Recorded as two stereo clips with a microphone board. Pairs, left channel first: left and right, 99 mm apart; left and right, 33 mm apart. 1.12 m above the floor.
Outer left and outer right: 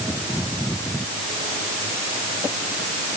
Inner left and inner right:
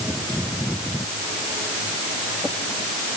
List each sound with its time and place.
Only background noise.